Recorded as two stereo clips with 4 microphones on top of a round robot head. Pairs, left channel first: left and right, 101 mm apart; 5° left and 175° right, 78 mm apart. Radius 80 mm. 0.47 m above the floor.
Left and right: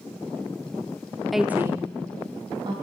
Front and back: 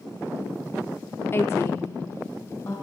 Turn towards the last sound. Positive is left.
turn(degrees=-60)